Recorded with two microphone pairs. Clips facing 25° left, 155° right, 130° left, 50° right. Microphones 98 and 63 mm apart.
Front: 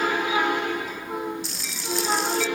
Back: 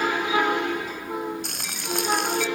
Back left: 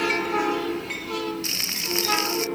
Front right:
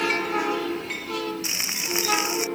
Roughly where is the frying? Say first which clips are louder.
Even, even; behind right.